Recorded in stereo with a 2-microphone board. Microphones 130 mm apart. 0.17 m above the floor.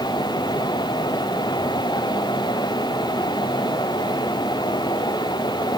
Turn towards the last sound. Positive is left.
No sound to turn to.